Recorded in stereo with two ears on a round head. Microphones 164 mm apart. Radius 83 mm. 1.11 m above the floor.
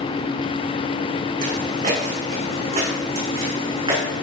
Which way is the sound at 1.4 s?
45° right (ahead or behind).